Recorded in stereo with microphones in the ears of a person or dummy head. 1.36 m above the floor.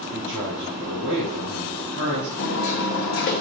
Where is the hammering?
50° left (ahead or behind), 0.9 m.